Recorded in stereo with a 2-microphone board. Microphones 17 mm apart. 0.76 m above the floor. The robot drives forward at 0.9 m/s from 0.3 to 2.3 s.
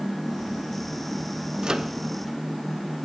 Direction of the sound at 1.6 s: 40° right (ahead or behind).